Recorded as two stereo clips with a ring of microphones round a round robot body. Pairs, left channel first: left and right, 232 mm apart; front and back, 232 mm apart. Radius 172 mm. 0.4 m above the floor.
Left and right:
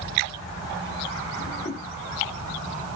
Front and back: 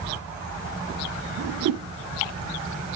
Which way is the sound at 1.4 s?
160° left.